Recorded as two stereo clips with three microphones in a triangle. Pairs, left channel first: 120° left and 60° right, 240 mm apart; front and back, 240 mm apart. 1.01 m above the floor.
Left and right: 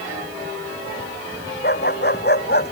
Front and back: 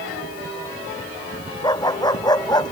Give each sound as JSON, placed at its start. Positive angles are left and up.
{"t": 1.6, "sound": "a dog barking", "azimuth_deg": 75}